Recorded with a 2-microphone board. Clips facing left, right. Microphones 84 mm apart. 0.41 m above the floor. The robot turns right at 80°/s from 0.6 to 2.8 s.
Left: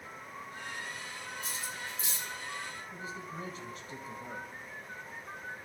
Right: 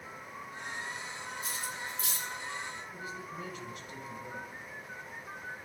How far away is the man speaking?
About 2.5 m.